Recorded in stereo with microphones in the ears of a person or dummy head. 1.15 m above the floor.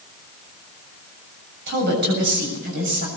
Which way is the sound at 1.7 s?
65° right (ahead or behind).